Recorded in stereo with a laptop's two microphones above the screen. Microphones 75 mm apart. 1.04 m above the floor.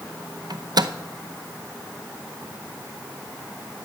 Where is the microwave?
65° right (ahead or behind), 0.6 m.